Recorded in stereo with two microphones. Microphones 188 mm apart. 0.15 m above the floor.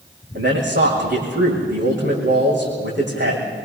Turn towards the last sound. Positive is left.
turn(degrees=-70)  # may be behind; listen again after turning